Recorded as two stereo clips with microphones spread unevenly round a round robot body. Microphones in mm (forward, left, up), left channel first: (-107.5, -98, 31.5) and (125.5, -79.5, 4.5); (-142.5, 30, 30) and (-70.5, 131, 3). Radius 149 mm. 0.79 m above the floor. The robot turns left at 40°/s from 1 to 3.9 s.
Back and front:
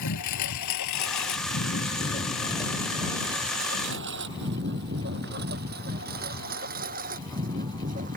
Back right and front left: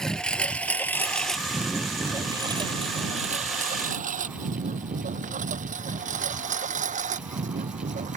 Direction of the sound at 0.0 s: 150° left.